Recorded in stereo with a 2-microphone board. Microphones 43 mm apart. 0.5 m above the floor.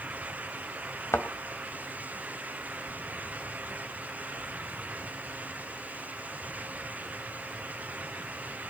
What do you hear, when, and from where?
1.1 s a thud: 80° left, 1.4 m